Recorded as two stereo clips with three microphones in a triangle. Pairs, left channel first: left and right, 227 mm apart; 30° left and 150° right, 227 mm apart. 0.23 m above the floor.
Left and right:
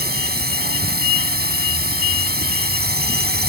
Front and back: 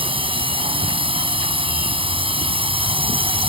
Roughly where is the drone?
Right.